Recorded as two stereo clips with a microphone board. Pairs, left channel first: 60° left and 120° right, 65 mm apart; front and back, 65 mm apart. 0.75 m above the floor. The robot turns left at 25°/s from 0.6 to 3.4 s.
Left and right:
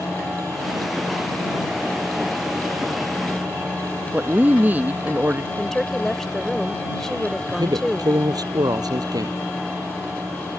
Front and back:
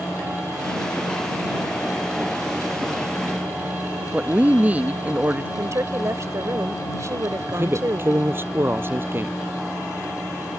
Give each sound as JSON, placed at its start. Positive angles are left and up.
{"t": 4.1, "sound": "a woman speaking", "azimuth_deg": -145}
{"t": 5.6, "sound": "a woman speaking", "azimuth_deg": 145}
{"t": 7.5, "sound": "a man speaking", "azimuth_deg": -125}